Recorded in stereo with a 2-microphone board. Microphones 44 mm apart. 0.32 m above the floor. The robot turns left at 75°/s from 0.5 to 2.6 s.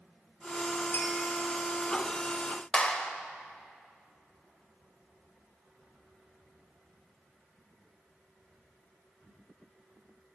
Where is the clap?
25° left (ahead or behind), 0.7 m.